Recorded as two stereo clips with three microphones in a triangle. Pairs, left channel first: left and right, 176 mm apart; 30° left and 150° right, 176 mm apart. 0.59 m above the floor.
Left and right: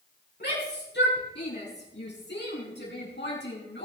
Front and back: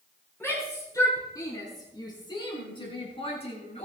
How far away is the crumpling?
I don't hear crumpling.